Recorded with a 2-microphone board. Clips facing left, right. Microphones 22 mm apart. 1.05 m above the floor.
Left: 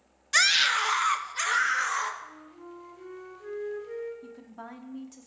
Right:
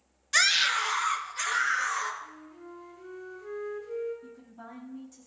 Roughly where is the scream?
Centre.